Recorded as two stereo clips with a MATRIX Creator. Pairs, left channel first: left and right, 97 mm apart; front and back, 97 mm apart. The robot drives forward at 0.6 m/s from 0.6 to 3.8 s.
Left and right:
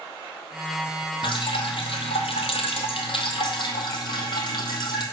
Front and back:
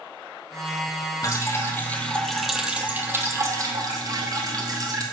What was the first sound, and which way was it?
Dripping, 55° left.